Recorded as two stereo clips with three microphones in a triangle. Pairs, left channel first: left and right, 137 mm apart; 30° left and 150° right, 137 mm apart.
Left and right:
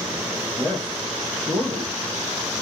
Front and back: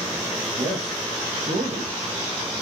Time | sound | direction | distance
0.6 | a man speaking | straight behind | 0.9 m